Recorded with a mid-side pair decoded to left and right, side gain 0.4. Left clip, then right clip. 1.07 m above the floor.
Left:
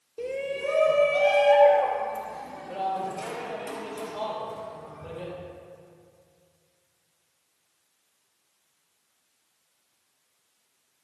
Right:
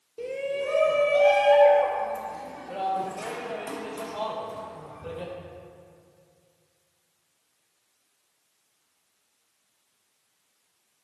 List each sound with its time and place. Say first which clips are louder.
0.2 s a shout: right 1 dB; 20° left, 3.5 m; by 5.3 s 20° right, 7 m